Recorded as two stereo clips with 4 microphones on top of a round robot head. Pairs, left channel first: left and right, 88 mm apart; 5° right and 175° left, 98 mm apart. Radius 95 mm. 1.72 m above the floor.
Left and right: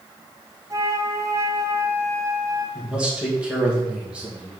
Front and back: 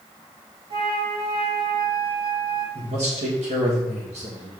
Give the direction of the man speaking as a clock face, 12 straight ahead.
6 o'clock.